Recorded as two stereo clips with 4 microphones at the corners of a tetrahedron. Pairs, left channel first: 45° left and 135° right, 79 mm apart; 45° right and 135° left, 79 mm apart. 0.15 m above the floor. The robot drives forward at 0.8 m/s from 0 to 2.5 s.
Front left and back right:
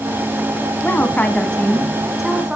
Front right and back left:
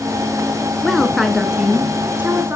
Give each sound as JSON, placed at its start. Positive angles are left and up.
{"t": 0.8, "sound": "a woman speaking", "azimuth_deg": 35, "distance_m": 1.7}